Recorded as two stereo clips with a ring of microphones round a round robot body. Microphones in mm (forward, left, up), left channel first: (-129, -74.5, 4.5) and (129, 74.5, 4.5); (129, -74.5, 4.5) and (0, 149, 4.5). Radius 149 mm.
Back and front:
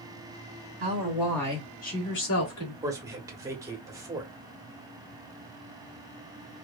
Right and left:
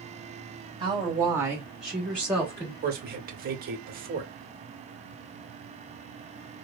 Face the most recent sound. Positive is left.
turn(degrees=100)